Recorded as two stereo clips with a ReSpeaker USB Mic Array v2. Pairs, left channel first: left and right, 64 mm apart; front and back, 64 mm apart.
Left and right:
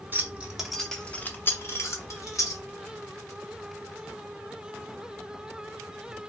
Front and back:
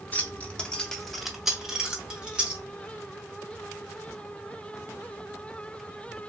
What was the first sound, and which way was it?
Keys jangling, 50° right.